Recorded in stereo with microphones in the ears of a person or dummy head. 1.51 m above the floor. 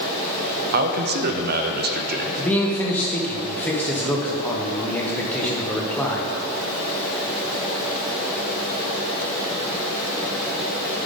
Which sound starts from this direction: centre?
A man speaking, at 2.4 s.